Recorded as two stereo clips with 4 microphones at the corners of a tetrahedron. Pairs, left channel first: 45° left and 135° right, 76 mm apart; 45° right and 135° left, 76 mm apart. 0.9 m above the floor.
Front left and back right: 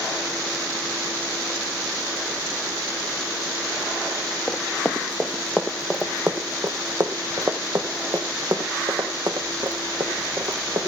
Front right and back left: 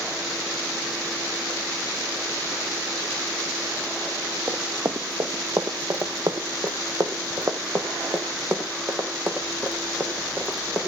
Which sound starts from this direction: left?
Running footsteps, at 4.5 s.